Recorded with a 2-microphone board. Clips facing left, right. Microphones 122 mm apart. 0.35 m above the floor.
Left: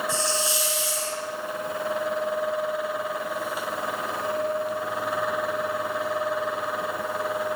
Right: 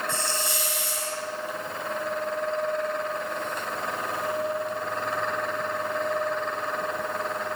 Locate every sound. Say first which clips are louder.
0.1 s a hiss: left 3 dB; 55° right (ahead or behind), 3 m